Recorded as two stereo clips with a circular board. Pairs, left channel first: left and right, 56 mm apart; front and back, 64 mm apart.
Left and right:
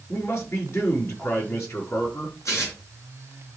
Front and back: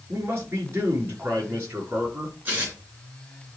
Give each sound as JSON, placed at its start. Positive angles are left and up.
{"t": 0.1, "sound": "a man speaking", "azimuth_deg": 125, "distance_m": 5.5}
{"t": 2.5, "sound": "tearing paper", "azimuth_deg": 120, "distance_m": 4.5}